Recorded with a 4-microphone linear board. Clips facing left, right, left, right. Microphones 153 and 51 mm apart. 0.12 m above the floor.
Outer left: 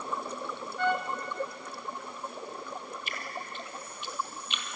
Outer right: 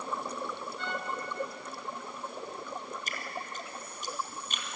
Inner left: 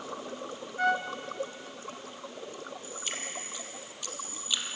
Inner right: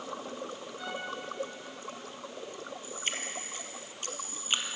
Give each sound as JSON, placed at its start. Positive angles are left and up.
{"t": 0.8, "sound": "a trumpet", "side_deg": 55, "distance_m": 1.5}
{"t": 3.1, "sound": "dripping", "side_deg": -40, "distance_m": 2.0}